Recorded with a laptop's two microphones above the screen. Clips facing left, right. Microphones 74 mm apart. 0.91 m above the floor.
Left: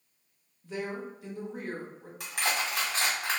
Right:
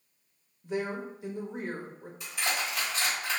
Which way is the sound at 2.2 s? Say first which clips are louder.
Left 2 dB; 75° left (ahead or behind).